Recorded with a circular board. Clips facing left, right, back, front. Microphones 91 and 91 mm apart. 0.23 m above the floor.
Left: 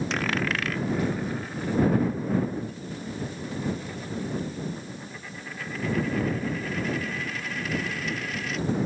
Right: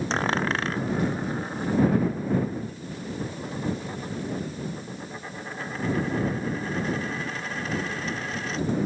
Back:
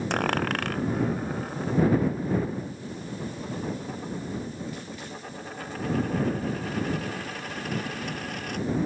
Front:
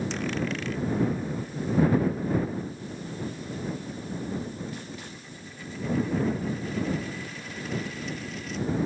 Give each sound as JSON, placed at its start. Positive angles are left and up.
{"t": 0.1, "sound": "a dropped coin", "azimuth_deg": -150}